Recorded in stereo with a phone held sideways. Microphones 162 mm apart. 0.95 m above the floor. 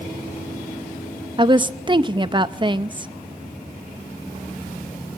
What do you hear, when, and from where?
1.4 s a woman speaking: 30° right (ahead or behind), 0.6 m